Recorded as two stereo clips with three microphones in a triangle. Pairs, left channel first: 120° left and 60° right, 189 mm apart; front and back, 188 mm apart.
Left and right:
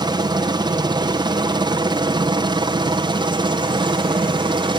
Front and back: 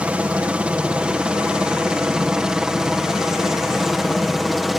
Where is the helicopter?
105° right; by 4.8 s 90° right.